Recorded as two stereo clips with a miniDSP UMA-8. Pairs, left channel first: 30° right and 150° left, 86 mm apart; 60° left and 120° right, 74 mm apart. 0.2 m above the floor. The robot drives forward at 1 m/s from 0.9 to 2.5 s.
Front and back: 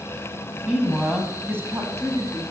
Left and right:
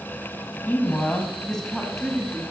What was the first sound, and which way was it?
A woman speaking, 70° left.